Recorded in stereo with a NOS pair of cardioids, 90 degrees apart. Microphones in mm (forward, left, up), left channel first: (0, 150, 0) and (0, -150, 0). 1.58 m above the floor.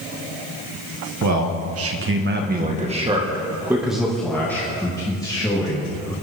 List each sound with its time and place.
1.2 s a man speaking: 65° right, 1.9 m; by 6.1 s 20° left, 4 m